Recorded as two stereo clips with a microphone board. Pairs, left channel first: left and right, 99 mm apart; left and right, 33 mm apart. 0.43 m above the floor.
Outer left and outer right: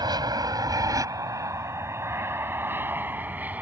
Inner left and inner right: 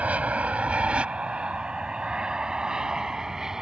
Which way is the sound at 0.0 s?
45° right (ahead or behind).